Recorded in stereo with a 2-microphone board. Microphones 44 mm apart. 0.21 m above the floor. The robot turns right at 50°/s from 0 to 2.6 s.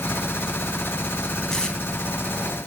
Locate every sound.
1.5 s tape being pulled: 15° left (ahead or behind), 1.1 m; by 1.8 s 25° left (ahead or behind), 1.1 m